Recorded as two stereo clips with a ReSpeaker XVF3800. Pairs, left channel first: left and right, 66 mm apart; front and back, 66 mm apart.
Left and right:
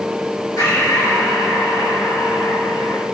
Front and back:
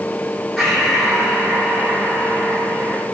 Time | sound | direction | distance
0.6 | breathing | 90° left | 4.5 m